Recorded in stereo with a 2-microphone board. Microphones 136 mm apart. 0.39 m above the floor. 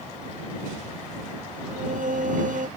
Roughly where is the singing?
Right.